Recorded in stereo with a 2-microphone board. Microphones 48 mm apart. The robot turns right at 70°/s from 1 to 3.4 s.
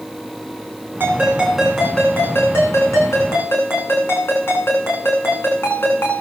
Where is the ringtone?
45° right, 7.5 m; by 6.2 s 125° left, 7.5 m.